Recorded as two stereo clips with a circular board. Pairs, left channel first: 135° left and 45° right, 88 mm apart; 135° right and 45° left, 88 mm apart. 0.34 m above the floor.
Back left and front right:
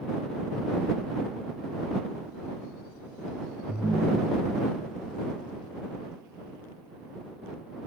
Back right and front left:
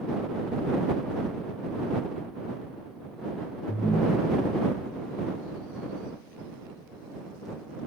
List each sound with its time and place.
3.7 s a ringtone: 85° right